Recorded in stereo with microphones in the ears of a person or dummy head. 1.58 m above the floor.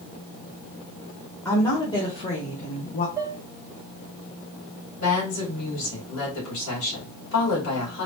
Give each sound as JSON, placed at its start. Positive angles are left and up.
{"t": 1.4, "sound": "a woman speaking", "side_deg": 15, "distance_m": 1.7}
{"t": 3.2, "sound": "dishes clattering", "side_deg": -15, "distance_m": 0.9}
{"t": 5.0, "sound": "a woman speaking", "side_deg": 75, "distance_m": 2.5}